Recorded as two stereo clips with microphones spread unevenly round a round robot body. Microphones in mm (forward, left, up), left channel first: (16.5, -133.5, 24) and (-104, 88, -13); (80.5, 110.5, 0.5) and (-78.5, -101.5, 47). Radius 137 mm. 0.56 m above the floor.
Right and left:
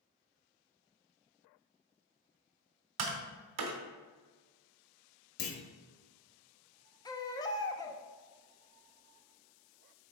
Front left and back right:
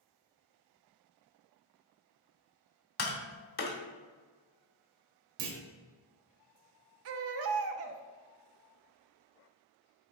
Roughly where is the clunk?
Right.